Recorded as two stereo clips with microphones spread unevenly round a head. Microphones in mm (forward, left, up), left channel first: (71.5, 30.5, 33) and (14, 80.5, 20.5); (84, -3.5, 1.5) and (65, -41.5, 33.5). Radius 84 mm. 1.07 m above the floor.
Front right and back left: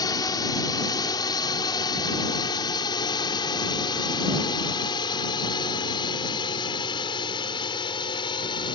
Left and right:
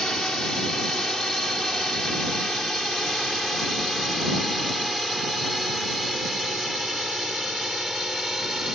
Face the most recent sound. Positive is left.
turn(degrees=-35)